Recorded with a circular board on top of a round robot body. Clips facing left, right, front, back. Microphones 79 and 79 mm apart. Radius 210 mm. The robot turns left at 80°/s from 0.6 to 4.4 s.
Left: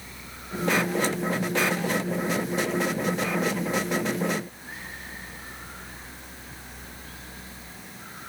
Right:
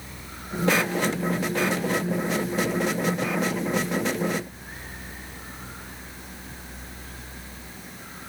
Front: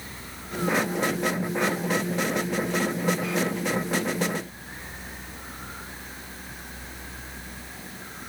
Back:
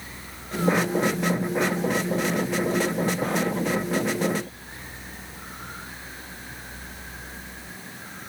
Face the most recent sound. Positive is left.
No sound to turn to.